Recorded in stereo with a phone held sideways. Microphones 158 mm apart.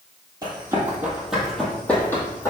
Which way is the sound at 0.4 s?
25° right (ahead or behind).